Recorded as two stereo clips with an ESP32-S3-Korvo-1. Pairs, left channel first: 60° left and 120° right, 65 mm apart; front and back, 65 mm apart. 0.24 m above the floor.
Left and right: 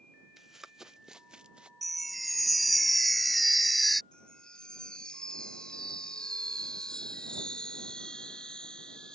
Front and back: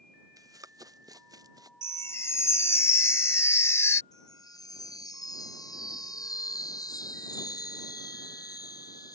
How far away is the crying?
No crying in this recording.